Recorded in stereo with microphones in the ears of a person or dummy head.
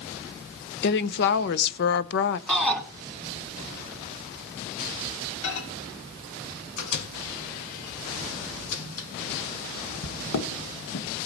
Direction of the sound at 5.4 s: 75° left (ahead or behind).